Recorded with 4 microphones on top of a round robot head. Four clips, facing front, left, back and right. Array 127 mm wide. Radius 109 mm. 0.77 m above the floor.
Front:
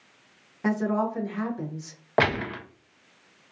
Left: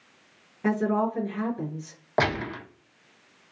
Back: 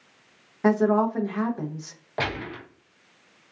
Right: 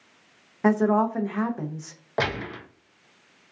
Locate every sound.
0.6 s a woman speaking: 125° right, 0.7 m
2.2 s a gunshot: 25° left, 0.7 m